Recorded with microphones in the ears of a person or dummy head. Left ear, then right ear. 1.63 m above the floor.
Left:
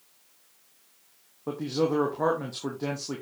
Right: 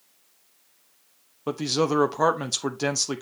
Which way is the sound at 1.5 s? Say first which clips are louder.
Right 3 dB; 80° right.